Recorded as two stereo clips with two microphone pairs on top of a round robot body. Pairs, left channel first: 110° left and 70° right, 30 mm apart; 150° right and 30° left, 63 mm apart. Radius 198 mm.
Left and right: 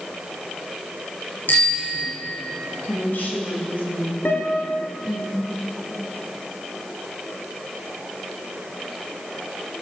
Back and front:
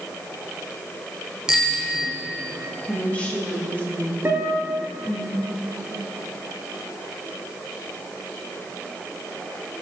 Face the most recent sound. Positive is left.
turn(degrees=85)